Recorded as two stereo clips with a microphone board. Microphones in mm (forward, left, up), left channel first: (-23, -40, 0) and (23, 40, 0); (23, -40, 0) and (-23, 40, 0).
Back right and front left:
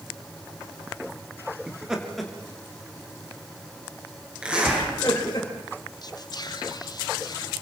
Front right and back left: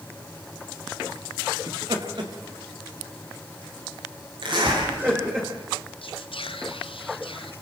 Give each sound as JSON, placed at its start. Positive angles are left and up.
{"t": 1.7, "sound": "laughter", "azimuth_deg": 140, "distance_m": 3.0}
{"t": 4.4, "sound": "a zipper", "azimuth_deg": 140, "distance_m": 9.0}
{"t": 6.0, "sound": "whispering", "azimuth_deg": -75, "distance_m": 1.2}